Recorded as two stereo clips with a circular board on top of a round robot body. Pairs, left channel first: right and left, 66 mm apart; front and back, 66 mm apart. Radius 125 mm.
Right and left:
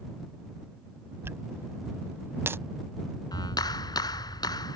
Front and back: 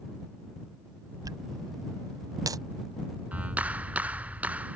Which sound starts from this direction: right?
A clap, at 3.3 s.